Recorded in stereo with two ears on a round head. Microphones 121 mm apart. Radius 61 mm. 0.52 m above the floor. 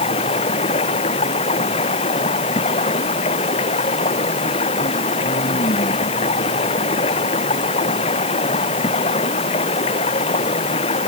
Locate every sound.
0.0 s running water: 40° left (ahead or behind)